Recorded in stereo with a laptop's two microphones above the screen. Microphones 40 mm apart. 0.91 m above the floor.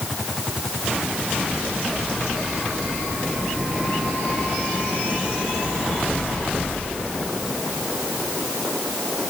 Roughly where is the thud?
I don't hear a thud.